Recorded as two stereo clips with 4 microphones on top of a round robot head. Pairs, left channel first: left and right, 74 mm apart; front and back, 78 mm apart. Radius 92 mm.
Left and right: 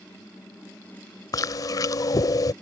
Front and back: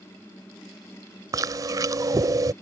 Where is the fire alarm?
No fire alarm in this recording.